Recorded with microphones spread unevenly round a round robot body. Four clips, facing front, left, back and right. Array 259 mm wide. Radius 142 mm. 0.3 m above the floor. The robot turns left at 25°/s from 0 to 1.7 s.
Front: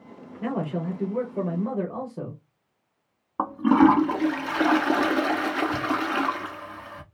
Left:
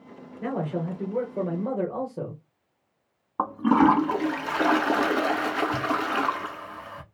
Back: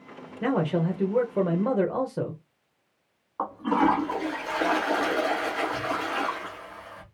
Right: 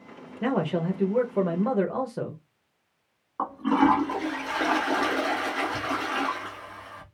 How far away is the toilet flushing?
About 0.9 m.